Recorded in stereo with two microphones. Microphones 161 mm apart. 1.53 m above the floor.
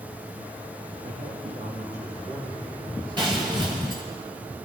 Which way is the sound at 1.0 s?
60° right (ahead or behind).